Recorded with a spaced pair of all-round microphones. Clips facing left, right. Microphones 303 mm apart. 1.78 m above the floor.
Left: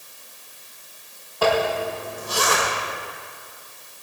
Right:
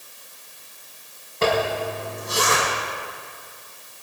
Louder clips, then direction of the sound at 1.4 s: Left 1 dB; 25° right (ahead or behind).